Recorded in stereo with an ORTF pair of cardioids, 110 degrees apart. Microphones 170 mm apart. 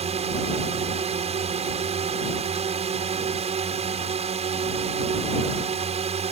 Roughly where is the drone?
Ahead right.